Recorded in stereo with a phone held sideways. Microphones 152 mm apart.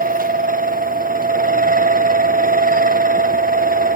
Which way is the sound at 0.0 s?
65° right (ahead or behind).